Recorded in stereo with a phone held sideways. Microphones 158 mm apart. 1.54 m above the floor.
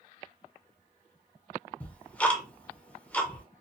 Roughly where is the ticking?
Centre.